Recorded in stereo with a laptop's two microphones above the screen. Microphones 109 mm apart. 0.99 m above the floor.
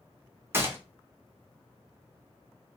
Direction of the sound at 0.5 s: 20° right (ahead or behind).